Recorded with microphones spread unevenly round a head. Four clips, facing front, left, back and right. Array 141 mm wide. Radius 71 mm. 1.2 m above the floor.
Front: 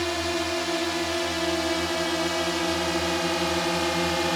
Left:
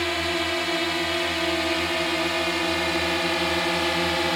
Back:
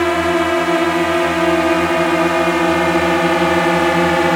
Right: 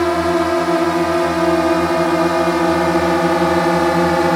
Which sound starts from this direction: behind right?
A drone, at 0.0 s.